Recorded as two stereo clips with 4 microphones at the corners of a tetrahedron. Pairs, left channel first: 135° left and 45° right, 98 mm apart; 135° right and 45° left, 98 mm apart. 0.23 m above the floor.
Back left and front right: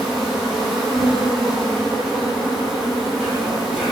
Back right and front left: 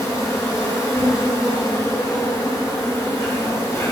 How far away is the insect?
About 2.5 m.